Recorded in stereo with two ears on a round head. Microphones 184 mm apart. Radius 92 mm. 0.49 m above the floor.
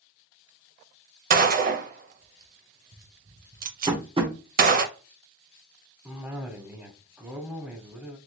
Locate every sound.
1.3 s a gunshot: 45° right (ahead or behind), 0.5 m
3.9 s tapping: 25° right (ahead or behind), 0.8 m
6.0 s a cough: 10° right (ahead or behind), 1.0 m